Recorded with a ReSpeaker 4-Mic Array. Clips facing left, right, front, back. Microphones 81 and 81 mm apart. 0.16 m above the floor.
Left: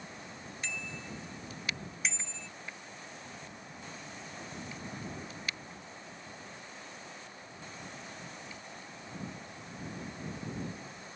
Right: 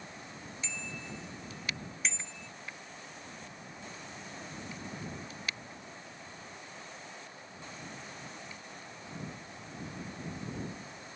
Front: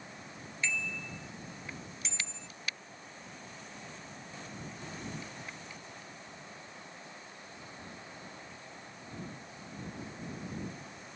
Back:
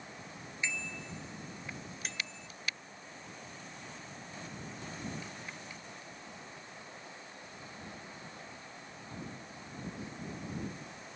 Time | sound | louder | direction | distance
0.6 | a bicycle bell | left 1 dB, front 2 dB | 105° left | ?